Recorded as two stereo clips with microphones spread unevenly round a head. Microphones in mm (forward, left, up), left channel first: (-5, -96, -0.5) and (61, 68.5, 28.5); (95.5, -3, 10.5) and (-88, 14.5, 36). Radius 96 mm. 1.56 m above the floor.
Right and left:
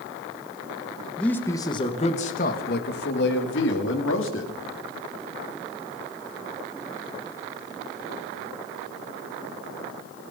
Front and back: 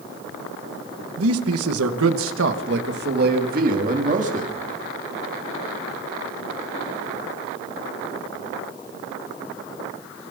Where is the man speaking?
160° left, 2 m; by 4.5 s 130° right, 4.5 m.